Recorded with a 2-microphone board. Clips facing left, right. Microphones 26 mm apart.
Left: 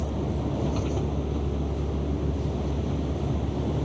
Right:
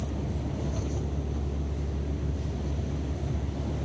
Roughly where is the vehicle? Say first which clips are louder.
Left 5 dB; left.